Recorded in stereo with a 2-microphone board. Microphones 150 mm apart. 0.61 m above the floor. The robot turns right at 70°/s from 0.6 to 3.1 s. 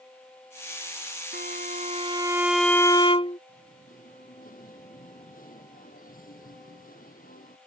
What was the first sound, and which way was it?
A violin, 90° right.